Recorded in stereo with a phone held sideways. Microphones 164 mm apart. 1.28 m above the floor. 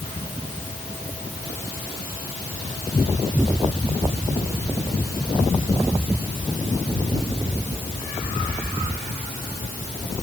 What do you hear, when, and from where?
Only background noise.